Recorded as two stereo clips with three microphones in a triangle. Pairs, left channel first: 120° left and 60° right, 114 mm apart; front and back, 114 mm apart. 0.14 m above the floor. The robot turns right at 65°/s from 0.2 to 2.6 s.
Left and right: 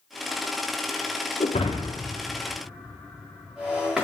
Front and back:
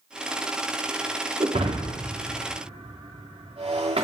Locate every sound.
1.4 s breaking glass: 135° left, 3 m; by 4.0 s 145° right, 3 m